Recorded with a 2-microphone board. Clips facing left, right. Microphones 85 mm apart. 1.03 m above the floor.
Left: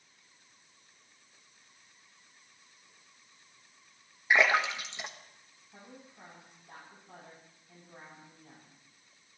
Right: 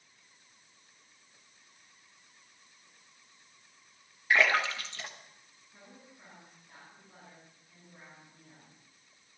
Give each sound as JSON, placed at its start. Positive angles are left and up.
{"t": 4.3, "sound": "a splash", "side_deg": 20, "distance_m": 1.6}
{"t": 5.7, "sound": "a woman speaking", "side_deg": 80, "distance_m": 9.0}